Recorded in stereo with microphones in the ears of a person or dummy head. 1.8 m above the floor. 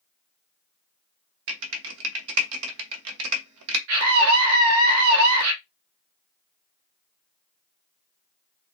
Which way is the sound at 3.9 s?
65° right (ahead or behind).